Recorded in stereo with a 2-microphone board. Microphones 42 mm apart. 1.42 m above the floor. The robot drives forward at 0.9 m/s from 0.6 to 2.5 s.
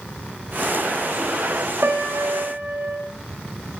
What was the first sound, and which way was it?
A piano, 65° right (ahead or behind).